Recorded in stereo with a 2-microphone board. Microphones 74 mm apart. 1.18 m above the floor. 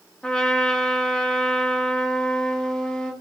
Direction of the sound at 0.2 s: 10° left (ahead or behind).